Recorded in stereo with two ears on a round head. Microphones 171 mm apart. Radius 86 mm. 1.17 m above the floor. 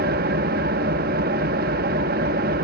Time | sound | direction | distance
0.0 | an engine running | 50° right (ahead or behind) | 0.9 m